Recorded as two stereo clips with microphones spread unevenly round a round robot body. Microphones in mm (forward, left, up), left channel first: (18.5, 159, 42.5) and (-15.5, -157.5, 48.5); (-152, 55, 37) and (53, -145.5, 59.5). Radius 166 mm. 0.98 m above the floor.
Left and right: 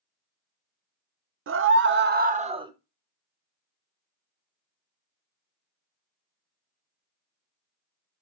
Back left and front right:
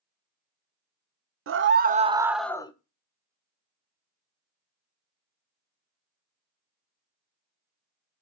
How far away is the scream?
About 0.8 m.